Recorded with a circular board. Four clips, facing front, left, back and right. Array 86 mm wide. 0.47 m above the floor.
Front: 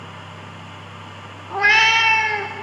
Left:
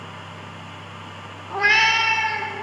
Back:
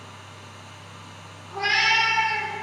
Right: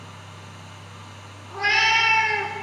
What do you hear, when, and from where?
1.5 s a cat meowing: 35° left, 0.5 m; by 2.5 s 35° right, 0.6 m